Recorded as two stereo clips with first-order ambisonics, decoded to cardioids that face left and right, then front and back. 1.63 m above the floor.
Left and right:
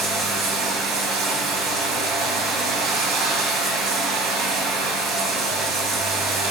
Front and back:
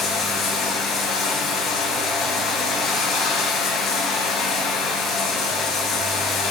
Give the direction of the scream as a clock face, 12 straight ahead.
I don't hear a scream.